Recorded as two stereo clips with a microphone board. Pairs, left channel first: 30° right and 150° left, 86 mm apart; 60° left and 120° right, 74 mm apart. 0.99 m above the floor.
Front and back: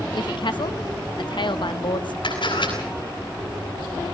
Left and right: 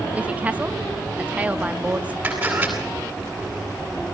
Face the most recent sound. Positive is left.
turn(degrees=-50)